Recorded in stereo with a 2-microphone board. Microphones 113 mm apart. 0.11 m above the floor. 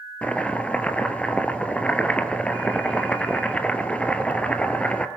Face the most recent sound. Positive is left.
turn(degrees=10)  # may be behind; listen again after turning